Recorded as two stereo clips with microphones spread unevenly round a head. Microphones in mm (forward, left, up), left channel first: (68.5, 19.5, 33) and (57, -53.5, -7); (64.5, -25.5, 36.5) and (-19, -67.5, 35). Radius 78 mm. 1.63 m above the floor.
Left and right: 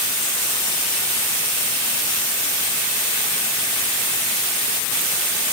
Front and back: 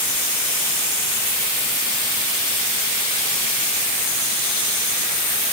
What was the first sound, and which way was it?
Only background noise.